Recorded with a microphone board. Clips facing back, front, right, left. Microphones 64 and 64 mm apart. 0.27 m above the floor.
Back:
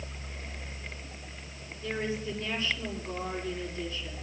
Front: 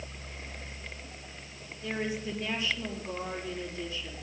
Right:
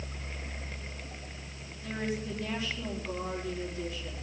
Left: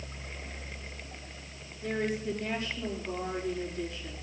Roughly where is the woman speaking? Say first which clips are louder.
Back 1 dB, left 3 dB; left.